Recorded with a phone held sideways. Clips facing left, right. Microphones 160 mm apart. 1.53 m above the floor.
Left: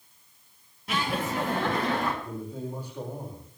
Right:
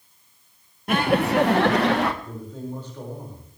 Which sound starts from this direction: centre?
A man speaking, at 2.2 s.